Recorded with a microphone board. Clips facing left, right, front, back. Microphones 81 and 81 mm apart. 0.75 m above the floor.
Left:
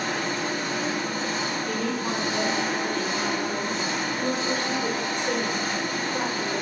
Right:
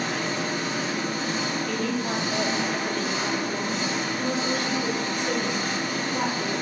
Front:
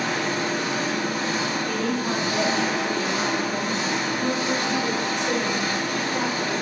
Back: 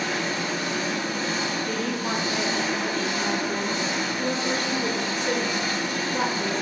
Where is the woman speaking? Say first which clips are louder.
Even, front 2 dB; 160° left, 1.9 m.